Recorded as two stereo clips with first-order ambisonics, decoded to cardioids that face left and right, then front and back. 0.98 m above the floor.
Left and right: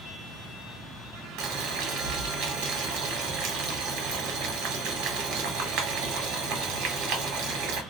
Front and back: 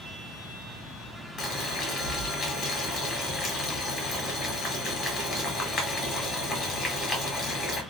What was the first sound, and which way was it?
Boiling, 80° right.